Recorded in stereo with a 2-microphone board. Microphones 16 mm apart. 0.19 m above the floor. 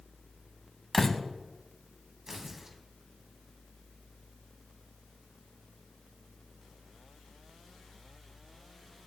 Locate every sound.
0.9 s a door slam: 15° left (ahead or behind), 0.7 m
2.3 s tearing paper: 25° right (ahead or behind), 1.3 m